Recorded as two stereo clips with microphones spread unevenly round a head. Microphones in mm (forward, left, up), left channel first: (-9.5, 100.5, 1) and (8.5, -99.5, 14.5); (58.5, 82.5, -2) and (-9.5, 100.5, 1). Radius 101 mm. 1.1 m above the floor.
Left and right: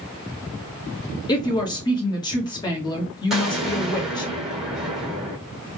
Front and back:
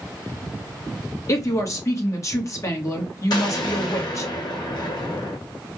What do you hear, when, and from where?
1.3 s a woman speaking: 25° left, 1.5 m
3.3 s an explosion: 5° left, 2 m